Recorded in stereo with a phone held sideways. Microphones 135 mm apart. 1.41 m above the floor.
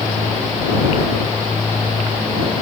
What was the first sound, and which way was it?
Only background noise.